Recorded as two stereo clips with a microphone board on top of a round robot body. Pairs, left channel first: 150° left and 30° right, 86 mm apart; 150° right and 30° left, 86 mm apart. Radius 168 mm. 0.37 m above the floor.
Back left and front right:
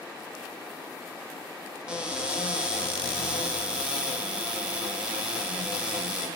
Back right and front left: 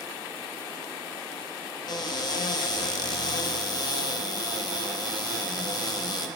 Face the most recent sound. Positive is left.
turn(degrees=-110)